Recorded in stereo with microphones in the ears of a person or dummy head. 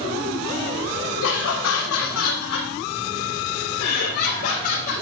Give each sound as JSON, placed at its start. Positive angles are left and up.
{"t": 1.2, "sound": "laughter", "side_deg": 70, "distance_m": 1.7}